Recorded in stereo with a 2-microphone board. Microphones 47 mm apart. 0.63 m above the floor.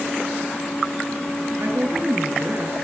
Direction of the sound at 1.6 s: 55° right (ahead or behind).